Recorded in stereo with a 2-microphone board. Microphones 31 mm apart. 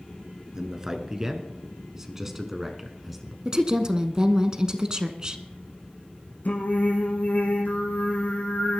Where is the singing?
65° left (ahead or behind), 2.5 m.